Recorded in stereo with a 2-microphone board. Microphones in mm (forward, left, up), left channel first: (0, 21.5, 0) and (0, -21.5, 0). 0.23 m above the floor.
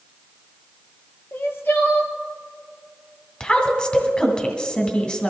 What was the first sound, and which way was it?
Crying, 60° left (ahead or behind).